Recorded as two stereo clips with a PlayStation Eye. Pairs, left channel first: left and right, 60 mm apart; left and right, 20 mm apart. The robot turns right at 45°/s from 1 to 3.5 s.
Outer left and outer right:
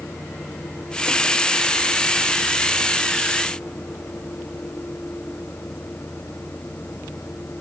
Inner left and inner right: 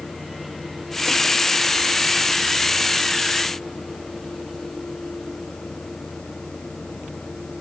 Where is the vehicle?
35° left; by 7.6 s 150° left.